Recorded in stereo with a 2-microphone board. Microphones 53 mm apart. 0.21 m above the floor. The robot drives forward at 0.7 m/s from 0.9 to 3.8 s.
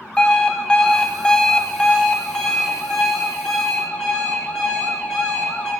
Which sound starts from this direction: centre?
An alarm clock, at 0.2 s.